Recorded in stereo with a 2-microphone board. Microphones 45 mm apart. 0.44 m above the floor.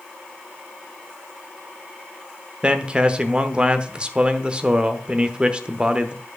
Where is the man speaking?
25° right (ahead or behind), 0.9 m.